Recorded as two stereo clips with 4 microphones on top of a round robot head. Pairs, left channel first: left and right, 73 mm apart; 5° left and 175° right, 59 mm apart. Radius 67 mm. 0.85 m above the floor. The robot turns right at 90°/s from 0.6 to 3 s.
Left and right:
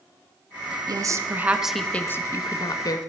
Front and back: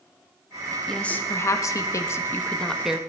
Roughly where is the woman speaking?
Right.